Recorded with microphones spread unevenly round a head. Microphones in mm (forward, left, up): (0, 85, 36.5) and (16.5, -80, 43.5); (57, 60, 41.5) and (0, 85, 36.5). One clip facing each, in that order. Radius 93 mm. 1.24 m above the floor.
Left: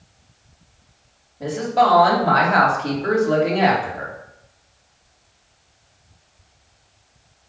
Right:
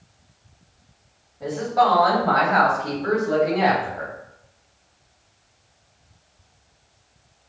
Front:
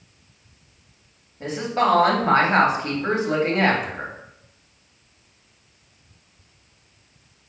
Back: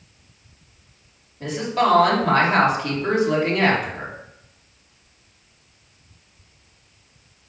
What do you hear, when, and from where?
1.4 s a woman speaking: 35° left, 2.5 m